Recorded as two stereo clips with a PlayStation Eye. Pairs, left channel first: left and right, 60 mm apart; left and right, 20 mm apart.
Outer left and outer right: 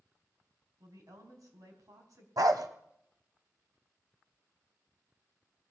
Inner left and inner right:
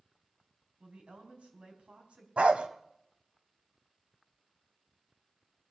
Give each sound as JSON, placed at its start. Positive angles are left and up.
{"t": 0.8, "sound": "a woman speaking", "side_deg": -70, "distance_m": 4.0}
{"t": 2.4, "sound": "a dog barking", "side_deg": -75, "distance_m": 1.3}